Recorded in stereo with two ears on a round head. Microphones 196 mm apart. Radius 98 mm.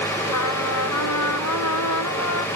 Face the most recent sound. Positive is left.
turn(degrees=85)